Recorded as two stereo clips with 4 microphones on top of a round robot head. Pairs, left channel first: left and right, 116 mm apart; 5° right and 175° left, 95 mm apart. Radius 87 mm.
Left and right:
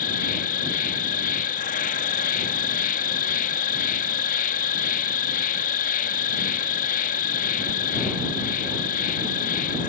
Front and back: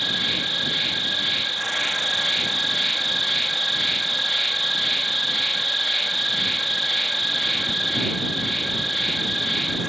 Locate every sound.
0.0 s an insect: 85° left